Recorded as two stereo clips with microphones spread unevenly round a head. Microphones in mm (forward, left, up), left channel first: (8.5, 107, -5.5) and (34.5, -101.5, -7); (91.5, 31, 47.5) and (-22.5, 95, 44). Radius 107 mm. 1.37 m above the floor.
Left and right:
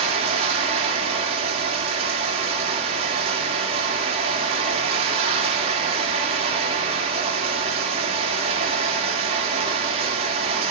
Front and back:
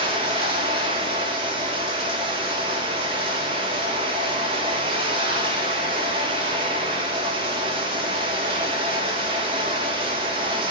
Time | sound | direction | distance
0.0 | running water | 150° right | 2.5 m